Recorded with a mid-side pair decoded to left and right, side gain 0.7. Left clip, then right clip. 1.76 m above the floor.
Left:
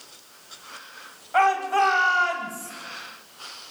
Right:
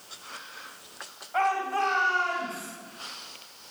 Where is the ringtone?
No ringtone in this recording.